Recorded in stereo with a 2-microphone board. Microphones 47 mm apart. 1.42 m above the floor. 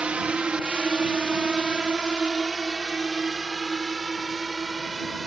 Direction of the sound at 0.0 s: 20° right (ahead or behind).